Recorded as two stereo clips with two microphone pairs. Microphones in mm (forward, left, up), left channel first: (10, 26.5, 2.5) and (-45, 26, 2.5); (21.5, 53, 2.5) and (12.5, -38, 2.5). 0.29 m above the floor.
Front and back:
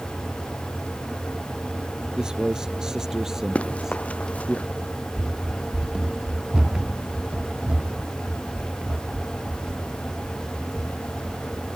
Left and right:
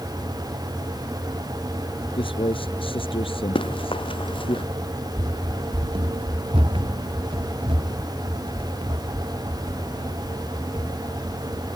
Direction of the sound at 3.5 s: 65° left.